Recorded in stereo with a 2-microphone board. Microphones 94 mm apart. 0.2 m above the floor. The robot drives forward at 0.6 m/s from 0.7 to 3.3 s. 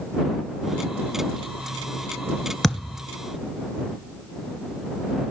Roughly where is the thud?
Centre.